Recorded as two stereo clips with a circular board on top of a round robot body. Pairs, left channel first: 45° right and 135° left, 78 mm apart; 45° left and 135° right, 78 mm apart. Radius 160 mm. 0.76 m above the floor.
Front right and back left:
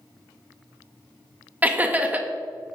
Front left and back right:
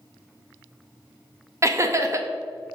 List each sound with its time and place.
1.6 s laughter: 165° right, 0.7 m